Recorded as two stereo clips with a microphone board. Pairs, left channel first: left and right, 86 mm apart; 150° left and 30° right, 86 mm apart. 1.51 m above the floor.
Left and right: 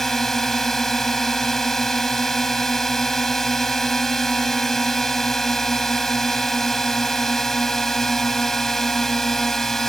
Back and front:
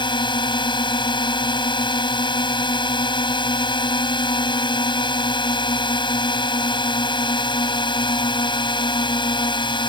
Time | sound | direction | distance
0.0 | a drone | 175° left | ?